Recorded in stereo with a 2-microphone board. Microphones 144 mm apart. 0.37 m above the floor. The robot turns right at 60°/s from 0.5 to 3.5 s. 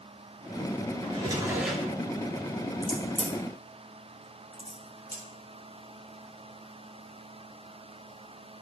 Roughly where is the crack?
Left.